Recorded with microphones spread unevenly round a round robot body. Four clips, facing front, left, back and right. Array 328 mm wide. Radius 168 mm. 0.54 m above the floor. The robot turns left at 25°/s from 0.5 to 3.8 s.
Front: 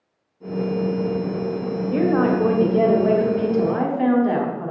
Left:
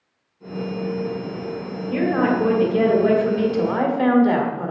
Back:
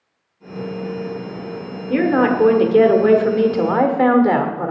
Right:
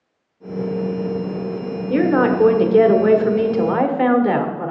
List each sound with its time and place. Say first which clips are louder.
1.9 s a woman speaking: right 4 dB, back 3 dB; 120° right, 1.5 m; by 4.7 s 170° right, 1.5 m